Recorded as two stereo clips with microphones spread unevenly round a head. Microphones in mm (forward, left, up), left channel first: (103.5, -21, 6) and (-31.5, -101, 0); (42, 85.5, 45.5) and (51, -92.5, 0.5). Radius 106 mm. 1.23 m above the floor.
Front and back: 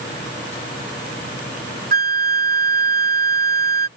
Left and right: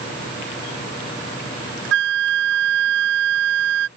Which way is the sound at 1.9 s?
120° right.